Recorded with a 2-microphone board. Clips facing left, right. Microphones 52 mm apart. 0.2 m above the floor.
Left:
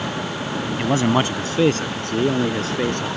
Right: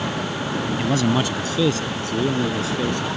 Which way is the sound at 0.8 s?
25° left (ahead or behind).